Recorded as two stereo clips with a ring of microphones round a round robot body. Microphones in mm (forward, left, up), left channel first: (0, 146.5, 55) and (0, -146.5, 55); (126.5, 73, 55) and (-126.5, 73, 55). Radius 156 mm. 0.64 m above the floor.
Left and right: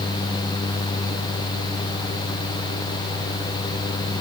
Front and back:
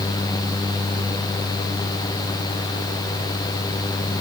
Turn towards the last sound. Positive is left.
No sound to turn to.